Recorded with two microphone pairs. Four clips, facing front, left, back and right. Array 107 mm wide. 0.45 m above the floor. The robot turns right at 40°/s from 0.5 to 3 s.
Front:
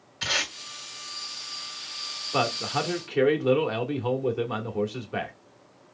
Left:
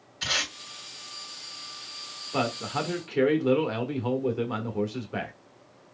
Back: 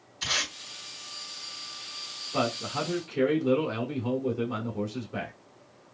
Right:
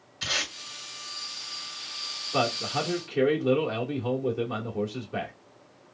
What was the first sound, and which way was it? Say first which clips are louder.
Tape being pulled: left 1 dB, front 3 dB; 10° left.